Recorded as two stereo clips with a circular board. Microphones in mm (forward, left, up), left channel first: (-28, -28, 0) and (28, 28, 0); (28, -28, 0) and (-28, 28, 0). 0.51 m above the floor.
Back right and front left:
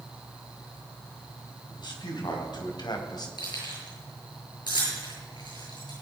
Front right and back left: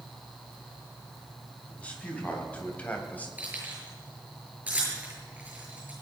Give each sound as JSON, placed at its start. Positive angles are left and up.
{"t": 1.7, "sound": "a man speaking", "azimuth_deg": -120, "distance_m": 3.5}
{"t": 3.4, "sound": "keys jangling", "azimuth_deg": -155, "distance_m": 7.5}